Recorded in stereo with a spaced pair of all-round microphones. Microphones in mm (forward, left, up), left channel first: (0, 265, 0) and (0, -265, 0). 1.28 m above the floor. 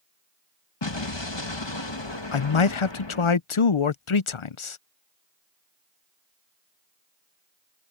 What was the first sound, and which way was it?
An explosion, 55° left (ahead or behind).